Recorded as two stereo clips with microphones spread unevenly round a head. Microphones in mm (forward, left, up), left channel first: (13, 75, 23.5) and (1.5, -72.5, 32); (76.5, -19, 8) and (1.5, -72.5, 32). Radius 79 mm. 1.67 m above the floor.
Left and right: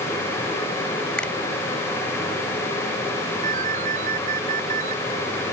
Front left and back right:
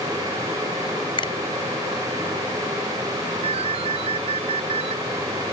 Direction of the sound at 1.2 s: Straight ahead.